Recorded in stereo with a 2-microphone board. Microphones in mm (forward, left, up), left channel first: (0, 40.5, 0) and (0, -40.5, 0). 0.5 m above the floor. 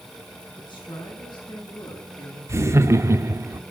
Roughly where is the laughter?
Right.